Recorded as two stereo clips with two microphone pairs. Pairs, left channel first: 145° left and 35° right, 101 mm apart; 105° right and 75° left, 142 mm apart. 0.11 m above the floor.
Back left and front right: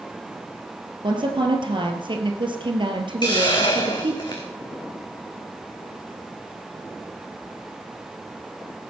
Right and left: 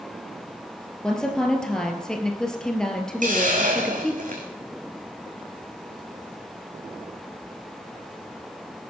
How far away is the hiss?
About 2.5 m.